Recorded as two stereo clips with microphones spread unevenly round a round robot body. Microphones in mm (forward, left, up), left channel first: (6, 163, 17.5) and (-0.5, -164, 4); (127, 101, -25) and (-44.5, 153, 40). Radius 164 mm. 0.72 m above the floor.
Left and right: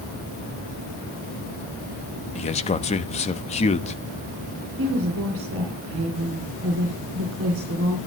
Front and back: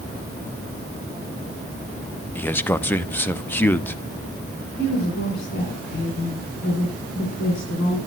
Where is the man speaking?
25° left, 1.0 m.